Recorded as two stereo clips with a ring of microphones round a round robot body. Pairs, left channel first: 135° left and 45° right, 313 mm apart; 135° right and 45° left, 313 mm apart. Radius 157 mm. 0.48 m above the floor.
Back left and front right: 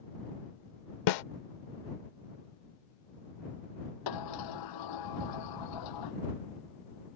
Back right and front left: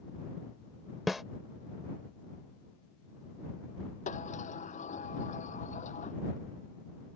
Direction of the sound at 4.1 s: 155° left.